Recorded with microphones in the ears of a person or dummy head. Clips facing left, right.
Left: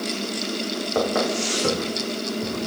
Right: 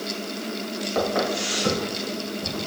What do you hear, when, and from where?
0.9 s footsteps: 50° left (ahead or behind), 2.5 m; by 2.6 s 55° left (ahead or behind), 4.5 m